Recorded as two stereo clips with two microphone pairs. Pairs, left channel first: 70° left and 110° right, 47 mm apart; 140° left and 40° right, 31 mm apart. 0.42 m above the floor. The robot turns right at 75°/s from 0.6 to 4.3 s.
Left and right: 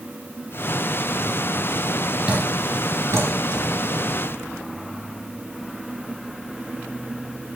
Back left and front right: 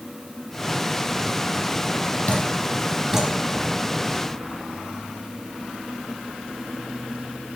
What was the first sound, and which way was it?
Dripping, straight behind.